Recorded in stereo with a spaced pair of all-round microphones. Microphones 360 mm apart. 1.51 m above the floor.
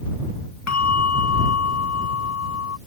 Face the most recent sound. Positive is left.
turn(degrees=45)  # may be behind; listen again after turning